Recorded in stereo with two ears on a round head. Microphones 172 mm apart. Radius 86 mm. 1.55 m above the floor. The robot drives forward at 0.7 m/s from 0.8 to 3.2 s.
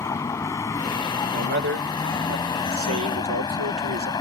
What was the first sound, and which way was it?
A vehicle, 15° left (ahead or behind).